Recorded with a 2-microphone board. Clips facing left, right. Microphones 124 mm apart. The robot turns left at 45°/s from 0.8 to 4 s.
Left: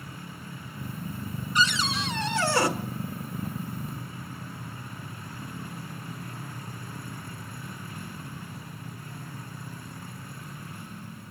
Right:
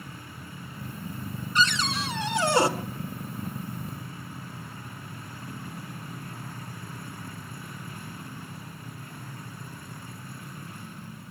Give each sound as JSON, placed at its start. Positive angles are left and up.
{"t": 1.6, "sound": "a cupboard door", "azimuth_deg": 15, "distance_m": 1.4}